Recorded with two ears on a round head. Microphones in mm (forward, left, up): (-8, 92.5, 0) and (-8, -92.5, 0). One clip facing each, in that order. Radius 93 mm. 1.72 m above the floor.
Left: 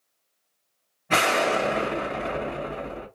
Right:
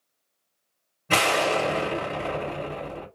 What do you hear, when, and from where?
1.1 s an explosion: 50° right (ahead or behind), 1.3 m